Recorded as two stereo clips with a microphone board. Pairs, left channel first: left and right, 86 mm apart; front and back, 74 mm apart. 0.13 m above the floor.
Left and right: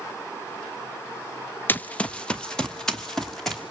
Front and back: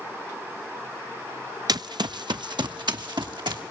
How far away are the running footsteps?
About 0.8 m.